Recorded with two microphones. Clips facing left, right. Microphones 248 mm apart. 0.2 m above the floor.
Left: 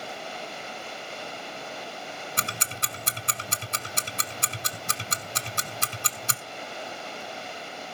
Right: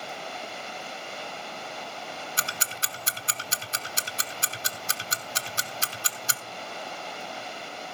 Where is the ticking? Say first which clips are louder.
Left 2 dB; 60° left (ahead or behind), 1.0 m.